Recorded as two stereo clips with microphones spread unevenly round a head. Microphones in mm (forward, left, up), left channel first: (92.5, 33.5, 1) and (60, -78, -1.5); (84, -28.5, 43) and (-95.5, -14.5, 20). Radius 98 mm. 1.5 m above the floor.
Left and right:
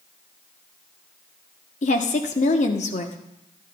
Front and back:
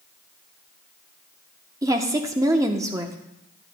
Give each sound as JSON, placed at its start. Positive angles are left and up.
{"t": 1.8, "sound": "a woman speaking", "azimuth_deg": 100, "distance_m": 0.8}